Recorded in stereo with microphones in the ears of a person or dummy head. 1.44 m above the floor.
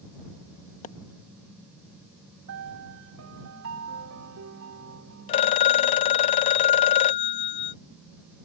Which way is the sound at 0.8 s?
35° left (ahead or behind).